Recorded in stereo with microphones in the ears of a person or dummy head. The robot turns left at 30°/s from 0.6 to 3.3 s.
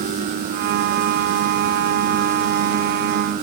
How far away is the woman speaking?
I don't hear a woman speaking.